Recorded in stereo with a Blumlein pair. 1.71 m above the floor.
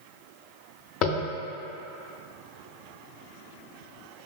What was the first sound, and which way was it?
Tapping, 40° left.